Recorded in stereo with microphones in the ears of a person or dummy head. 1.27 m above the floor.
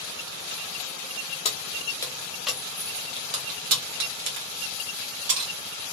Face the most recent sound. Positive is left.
turn(degrees=-80)